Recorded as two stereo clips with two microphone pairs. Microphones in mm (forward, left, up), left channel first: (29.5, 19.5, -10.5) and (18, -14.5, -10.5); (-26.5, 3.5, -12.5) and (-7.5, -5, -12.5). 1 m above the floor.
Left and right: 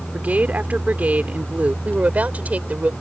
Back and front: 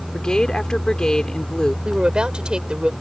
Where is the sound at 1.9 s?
65° right.